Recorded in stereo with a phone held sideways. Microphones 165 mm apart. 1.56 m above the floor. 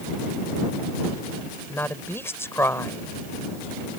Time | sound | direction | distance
1.7 | a woman speaking | 10° left (ahead or behind) | ?